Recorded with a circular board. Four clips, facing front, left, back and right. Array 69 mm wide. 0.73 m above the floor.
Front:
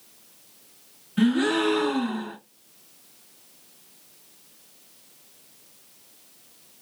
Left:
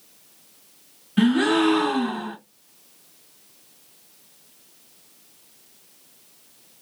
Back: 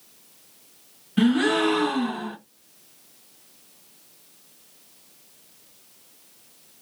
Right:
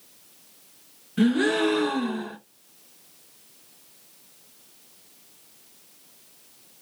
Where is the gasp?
110° left, 1.1 m.